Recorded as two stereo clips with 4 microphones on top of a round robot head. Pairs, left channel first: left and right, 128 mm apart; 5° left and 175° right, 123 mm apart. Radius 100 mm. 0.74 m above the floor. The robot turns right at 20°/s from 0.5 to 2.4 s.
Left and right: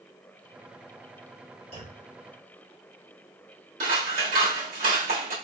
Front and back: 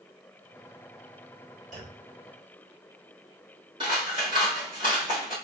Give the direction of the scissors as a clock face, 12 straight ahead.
4 o'clock.